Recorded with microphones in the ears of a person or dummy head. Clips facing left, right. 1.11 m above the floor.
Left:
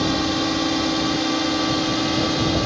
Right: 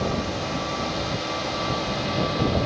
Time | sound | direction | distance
0.0 | a drone | 65° left (ahead or behind) | ?